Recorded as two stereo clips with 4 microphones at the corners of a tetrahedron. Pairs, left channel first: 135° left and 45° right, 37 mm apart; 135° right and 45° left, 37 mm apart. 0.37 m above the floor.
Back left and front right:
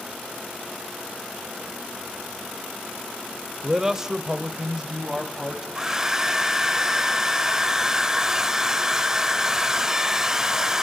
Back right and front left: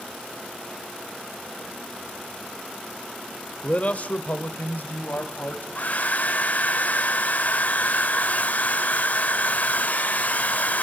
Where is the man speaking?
110° right, 1.1 m; by 5.7 s 115° right, 2 m.